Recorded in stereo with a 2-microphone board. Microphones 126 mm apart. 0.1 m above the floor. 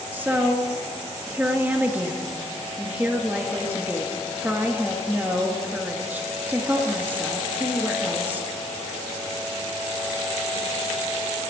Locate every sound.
0.1 s a woman speaking: 15° right (ahead or behind), 2.5 m